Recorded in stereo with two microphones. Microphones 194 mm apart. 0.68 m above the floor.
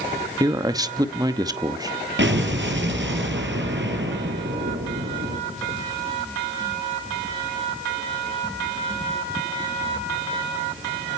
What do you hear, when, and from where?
0.4 s a man speaking: 20° right (ahead or behind), 0.9 m
2.2 s an explosion: 70° right (ahead or behind), 4 m